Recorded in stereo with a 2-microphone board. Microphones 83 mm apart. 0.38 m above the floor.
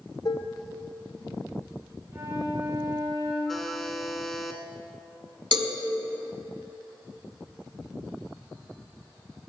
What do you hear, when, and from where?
0.2 s dishes clattering: 50° left (ahead or behind), 1.0 m
2.1 s a flute: 45° right (ahead or behind), 4 m
3.5 s a buzzer: 5° left (ahead or behind), 1.4 m
5.5 s a cowbell: 65° right (ahead or behind), 1.1 m